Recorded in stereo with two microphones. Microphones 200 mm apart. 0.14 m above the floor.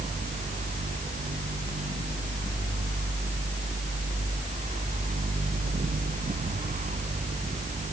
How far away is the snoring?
I don't hear snoring.